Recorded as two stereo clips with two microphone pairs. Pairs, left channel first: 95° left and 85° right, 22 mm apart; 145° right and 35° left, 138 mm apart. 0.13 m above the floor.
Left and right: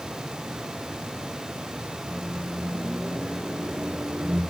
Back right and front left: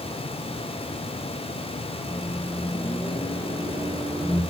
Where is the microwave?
85° right, 5 m.